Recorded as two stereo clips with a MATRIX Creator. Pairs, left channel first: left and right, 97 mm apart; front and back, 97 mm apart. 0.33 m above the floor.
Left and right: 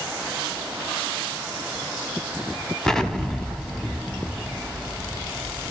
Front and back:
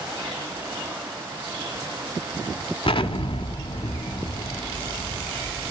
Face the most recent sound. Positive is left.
turn(degrees=5)